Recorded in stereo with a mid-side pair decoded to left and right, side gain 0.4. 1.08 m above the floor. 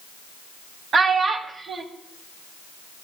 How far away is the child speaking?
About 0.9 m.